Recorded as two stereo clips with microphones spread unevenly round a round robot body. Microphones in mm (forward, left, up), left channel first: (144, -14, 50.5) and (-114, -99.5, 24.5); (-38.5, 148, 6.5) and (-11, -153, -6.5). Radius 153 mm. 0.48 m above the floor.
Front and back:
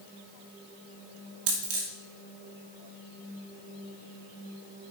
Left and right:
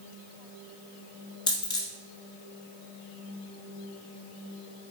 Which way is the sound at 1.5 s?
170° left.